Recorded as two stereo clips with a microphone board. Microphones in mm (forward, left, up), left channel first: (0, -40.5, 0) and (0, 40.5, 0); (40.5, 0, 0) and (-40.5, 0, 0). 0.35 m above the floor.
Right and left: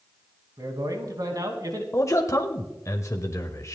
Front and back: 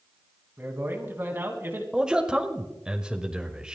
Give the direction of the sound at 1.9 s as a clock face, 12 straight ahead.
4 o'clock.